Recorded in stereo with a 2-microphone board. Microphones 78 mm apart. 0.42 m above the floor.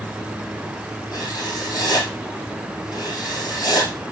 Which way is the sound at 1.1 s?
50° left (ahead or behind).